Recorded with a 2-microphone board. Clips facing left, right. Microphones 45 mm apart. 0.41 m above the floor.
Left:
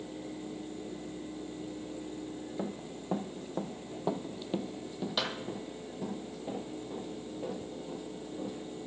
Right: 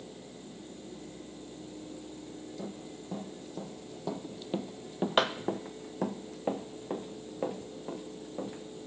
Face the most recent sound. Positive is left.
turn(degrees=-75)  # may be behind; listen again after turning